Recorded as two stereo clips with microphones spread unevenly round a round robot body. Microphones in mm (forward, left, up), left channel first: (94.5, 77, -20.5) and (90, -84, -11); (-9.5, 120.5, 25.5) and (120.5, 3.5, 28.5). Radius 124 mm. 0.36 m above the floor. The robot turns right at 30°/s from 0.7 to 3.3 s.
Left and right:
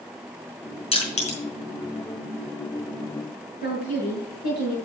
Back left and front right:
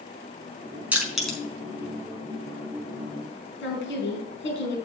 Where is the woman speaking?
140° left, 4 m.